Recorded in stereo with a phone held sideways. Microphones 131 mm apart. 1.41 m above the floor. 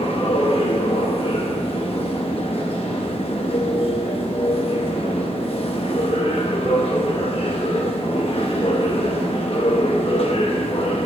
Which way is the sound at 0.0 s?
45° left (ahead or behind).